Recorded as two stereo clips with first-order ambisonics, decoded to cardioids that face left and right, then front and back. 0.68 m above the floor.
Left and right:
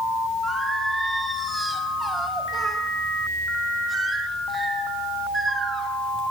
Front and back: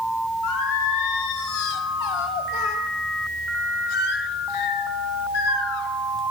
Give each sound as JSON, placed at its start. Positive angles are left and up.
{"t": 0.4, "sound": "singing", "azimuth_deg": -10, "distance_m": 1.2}